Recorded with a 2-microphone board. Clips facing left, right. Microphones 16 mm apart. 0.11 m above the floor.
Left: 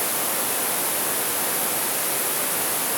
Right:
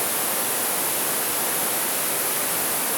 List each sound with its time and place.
Only background noise.